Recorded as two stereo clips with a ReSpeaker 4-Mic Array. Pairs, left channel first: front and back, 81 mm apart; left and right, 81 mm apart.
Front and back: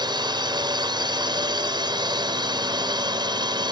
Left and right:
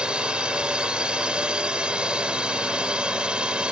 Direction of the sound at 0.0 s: 165° right.